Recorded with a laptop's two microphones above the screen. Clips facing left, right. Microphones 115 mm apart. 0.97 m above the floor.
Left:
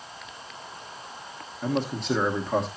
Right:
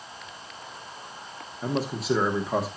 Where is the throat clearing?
I don't hear throat clearing.